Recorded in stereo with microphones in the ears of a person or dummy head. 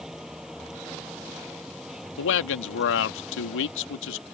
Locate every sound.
0.0 s a vehicle: 5° right (ahead or behind)
2.2 s a man speaking: 75° left (ahead or behind)